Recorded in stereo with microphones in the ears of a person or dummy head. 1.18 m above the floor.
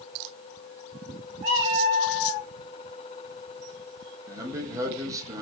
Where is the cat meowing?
35° right (ahead or behind), 0.5 m.